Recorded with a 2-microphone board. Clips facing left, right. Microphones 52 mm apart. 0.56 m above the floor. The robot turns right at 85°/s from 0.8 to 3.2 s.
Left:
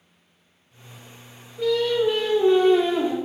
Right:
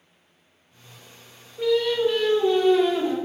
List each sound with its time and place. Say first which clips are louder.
1.6 s singing: even; 25° right, 0.7 m; by 3.1 s 105° left, 0.7 m